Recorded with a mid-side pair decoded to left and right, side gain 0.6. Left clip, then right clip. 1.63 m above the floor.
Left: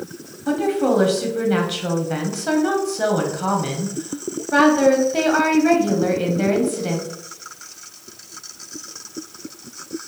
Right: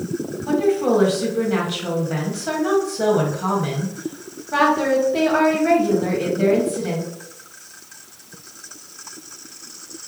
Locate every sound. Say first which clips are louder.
0.5 s a woman speaking: right 1 dB; 25° left, 1.2 m